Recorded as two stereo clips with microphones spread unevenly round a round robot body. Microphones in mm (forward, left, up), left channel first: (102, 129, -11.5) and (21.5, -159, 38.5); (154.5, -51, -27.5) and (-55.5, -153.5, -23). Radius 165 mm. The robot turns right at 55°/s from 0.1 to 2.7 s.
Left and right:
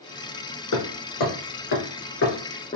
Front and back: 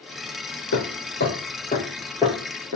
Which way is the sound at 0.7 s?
45° left.